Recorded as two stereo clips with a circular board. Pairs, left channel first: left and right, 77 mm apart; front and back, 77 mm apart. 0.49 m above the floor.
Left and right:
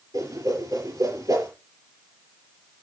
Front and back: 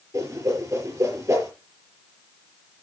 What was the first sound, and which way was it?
A whoosh, 130° right.